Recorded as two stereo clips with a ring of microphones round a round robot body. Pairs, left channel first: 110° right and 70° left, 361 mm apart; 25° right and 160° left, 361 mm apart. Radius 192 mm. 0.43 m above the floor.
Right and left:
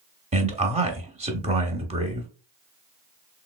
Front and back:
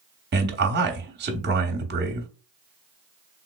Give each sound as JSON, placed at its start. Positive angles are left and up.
{"t": 0.3, "sound": "a man speaking", "azimuth_deg": 125, "distance_m": 0.8}